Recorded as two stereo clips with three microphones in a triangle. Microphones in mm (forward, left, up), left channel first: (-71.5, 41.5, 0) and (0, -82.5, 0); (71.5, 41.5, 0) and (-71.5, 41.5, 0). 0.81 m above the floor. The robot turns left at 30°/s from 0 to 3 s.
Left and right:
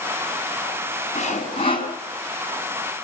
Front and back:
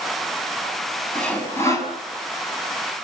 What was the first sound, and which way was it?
Sawing, 85° left.